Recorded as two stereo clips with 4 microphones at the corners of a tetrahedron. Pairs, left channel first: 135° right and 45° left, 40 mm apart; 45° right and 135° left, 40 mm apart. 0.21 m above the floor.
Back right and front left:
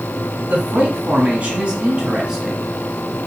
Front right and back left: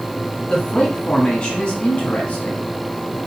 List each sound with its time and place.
0.5 s a man speaking: 25° left, 1.8 m; by 3.2 s 45° right, 1.3 m